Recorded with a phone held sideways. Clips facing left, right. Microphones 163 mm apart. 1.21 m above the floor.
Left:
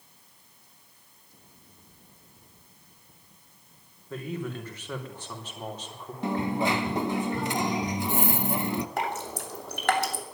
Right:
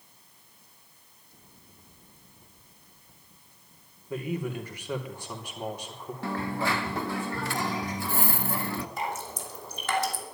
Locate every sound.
4.1 s a man speaking: 10° right (ahead or behind), 3.5 m
6.2 s a dropped coin: 20° left (ahead or behind), 0.8 m
9.0 s dripping: 65° left (ahead or behind), 2.5 m